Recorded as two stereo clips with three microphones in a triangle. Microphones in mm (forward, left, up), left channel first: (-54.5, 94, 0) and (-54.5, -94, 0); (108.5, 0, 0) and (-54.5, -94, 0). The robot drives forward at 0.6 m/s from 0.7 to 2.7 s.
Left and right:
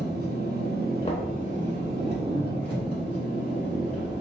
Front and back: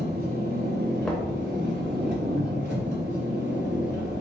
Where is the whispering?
No whispering in this recording.